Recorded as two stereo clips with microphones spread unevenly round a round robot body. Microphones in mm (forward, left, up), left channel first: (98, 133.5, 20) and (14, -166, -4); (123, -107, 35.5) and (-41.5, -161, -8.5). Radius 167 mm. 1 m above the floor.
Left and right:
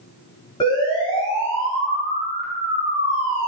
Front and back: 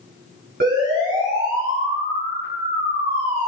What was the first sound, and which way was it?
A siren, 150° left.